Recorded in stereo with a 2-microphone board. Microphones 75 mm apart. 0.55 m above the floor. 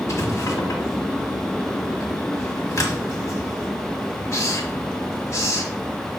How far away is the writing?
About 1.5 m.